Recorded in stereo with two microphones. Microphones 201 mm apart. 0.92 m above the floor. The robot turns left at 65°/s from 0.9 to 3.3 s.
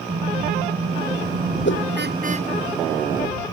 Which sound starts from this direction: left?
A whoosh, at 1.6 s.